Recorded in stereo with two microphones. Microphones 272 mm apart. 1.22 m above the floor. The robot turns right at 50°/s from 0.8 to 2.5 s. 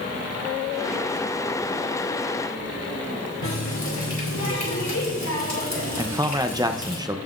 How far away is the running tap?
About 2.5 m.